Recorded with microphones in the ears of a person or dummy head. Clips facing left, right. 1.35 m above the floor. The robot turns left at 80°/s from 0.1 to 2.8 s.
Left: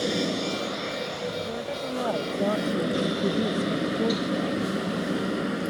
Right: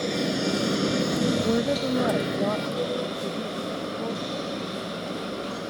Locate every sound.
0.0 s an engine running: 5° left; by 5.7 s 150° left
1.4 s a woman speaking: 110° right; by 4.7 s 140° left